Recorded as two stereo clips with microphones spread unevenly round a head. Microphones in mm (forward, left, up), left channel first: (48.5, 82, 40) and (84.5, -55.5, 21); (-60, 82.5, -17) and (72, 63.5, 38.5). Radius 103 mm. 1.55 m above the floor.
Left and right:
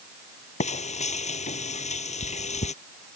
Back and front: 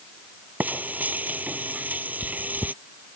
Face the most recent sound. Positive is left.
turn(degrees=70)